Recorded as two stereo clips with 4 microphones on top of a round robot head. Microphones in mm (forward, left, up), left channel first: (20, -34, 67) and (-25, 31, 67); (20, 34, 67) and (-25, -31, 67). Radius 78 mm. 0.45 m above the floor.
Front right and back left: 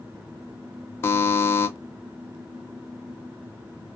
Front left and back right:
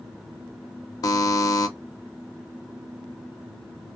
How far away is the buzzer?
About 0.6 m.